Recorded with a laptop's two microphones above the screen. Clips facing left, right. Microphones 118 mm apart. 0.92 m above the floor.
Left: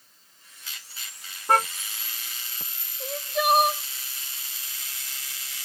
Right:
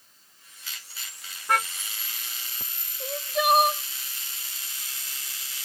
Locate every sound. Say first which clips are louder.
1.5 s a car horn: left 4 dB; 35° left (ahead or behind)
3.0 s crying: even; centre (ahead or behind)